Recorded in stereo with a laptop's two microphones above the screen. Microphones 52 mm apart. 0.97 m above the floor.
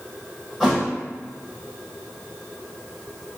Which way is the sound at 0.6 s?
5° right (ahead or behind).